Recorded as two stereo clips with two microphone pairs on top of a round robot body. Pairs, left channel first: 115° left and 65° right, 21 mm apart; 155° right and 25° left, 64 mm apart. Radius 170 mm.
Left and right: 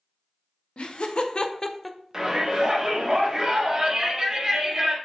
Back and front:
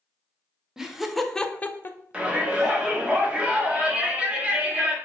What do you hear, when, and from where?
0.8 s laughter: 100° left, 0.7 m; by 3.1 s 110° right, 0.9 m
2.1 s a shout: 20° right, 1.1 m